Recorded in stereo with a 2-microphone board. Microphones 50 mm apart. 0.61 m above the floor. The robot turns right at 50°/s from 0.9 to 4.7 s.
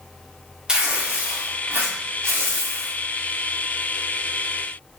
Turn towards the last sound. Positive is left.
turn(degrees=30)